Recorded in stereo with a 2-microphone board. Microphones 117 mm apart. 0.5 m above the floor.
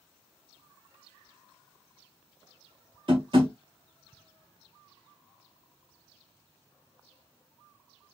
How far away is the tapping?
About 1.1 m.